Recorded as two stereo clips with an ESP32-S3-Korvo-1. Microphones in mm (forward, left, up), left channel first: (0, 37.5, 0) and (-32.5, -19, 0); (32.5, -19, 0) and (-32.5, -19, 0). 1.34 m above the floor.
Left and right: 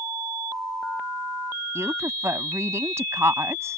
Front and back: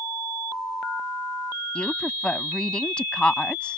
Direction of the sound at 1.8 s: 75° right.